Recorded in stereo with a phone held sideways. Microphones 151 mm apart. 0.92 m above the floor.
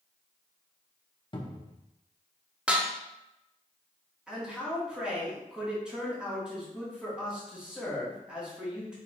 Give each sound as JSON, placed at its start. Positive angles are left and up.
{"t": 1.3, "sound": "a cupboard door", "side_deg": 35, "distance_m": 0.7}
{"t": 2.7, "sound": "dishes clattering", "side_deg": -10, "distance_m": 0.6}
{"t": 4.3, "sound": "a man speaking", "side_deg": -5, "distance_m": 1.8}